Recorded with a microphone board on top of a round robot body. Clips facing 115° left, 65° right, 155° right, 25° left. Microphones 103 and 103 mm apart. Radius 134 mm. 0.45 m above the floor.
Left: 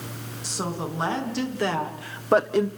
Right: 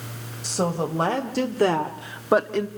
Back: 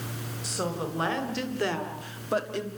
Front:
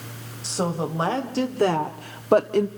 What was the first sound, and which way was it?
A woman speaking, 40° right.